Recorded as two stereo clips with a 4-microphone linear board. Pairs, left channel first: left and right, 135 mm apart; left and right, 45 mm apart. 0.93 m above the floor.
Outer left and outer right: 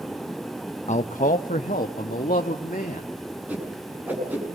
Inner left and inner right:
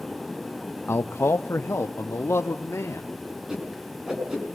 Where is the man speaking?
55° left (ahead or behind), 0.7 m; by 3.1 s 75° left (ahead or behind), 2 m.